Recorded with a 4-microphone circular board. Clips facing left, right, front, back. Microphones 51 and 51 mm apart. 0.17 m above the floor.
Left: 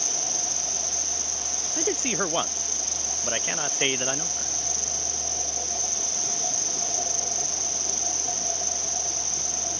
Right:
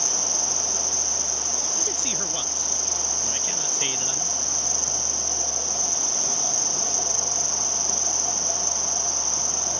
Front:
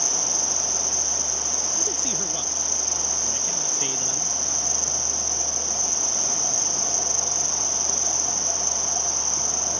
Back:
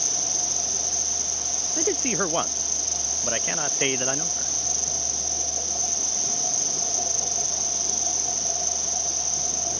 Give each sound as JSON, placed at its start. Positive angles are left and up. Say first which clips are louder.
{"t": 0.0, "sound": "an insect", "louder": "right 3 dB, front 3 dB", "azimuth_deg": -45}
{"t": 1.8, "sound": "a man speaking", "louder": "left 11 dB, back 12 dB", "azimuth_deg": 145}